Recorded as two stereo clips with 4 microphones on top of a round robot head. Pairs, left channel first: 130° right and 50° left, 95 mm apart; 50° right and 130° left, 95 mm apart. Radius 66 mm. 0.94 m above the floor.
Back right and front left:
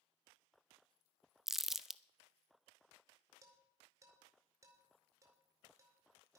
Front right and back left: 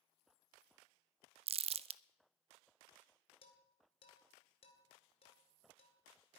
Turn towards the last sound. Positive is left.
turn(degrees=-15)